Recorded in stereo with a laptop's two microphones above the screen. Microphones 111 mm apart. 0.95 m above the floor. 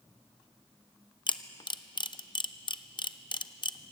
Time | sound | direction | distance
1.3 | a camera shutter | 45° left (ahead or behind) | 0.6 m